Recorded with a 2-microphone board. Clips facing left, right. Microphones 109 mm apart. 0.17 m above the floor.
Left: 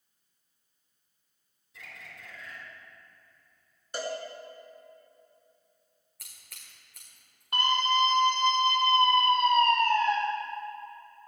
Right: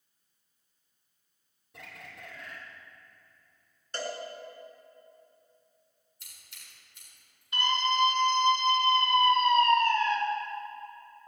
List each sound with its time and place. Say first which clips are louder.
1.7 s a bird: right 2 dB; 60° right (ahead or behind), 4 m
3.9 s a cowbell: left 2 dB; 10° left (ahead or behind), 2.5 m
6.2 s scissors: left 1 dB; 85° left, 5 m
7.5 s a scream: left 2 dB; 55° left (ahead or behind), 5.5 m